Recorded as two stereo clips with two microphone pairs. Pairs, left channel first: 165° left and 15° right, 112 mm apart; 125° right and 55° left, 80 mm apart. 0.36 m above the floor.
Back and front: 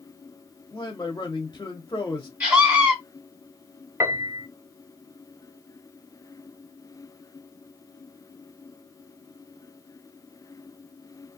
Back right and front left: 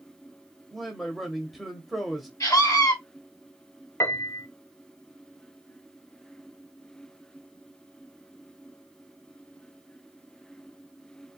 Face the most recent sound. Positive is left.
turn(degrees=-80)